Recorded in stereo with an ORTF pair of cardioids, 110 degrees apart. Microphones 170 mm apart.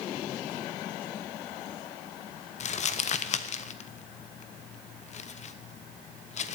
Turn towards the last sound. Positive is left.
turn(degrees=40)